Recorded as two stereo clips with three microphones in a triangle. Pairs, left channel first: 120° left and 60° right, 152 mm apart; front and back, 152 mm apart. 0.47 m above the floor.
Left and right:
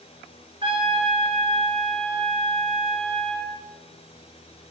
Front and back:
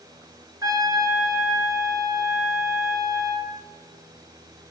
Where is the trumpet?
115° right, 1.4 m.